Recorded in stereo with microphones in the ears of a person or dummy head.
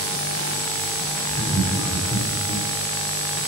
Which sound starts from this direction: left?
Laughter, at 1.3 s.